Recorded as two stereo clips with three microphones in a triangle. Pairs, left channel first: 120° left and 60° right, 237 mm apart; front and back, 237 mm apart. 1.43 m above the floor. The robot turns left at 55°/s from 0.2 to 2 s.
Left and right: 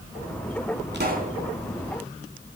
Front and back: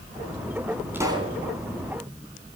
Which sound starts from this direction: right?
A pop, at 0.9 s.